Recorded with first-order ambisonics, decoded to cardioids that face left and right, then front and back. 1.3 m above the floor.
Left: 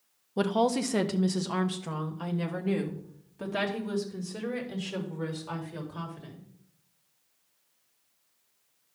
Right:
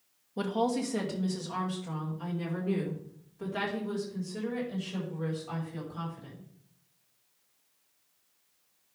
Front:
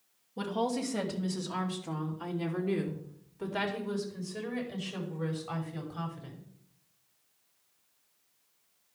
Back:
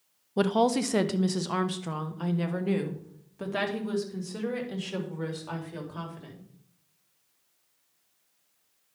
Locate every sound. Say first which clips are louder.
0.4 s a woman speaking: left 4 dB, back 8 dB; 155° left, 0.5 m; by 6.5 s 145° left, 3.5 m